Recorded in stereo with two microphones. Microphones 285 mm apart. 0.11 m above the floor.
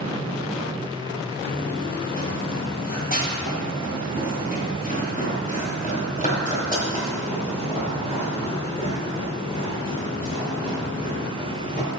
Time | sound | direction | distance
1.5 | running footsteps | 30° left (ahead or behind) | 3 m